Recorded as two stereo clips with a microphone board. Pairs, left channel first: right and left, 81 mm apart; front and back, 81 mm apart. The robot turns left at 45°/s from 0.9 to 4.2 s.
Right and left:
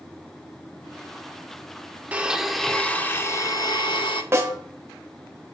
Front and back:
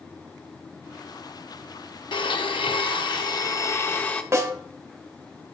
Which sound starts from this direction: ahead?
A blender, at 2.1 s.